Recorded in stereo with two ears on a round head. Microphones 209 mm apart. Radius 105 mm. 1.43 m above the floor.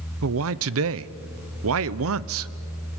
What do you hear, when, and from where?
0.2 s a man speaking: 65° right (ahead or behind), 0.7 m